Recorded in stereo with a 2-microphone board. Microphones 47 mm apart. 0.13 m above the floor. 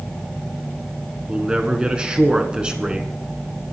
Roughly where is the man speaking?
Centre.